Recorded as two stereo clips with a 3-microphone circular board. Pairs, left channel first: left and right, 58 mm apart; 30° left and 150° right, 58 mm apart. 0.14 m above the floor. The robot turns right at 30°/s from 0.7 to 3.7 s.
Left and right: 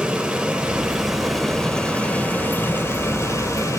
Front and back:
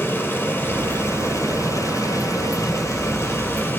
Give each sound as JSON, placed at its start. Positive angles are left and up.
{"t": 0.0, "sound": "running water", "azimuth_deg": -10, "distance_m": 2.5}